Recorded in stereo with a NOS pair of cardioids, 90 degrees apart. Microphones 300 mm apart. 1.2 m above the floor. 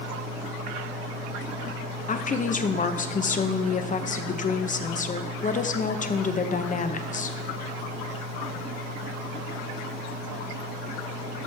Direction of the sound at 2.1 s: 25° left.